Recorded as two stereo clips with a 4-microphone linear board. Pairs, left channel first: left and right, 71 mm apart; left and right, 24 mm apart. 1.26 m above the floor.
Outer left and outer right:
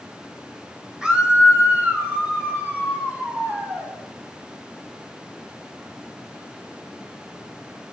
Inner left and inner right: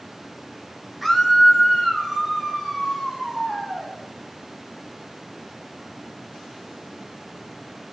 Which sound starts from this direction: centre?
A scream, at 1.0 s.